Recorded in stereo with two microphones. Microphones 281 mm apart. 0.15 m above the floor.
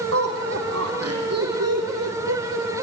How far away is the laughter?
About 7 m.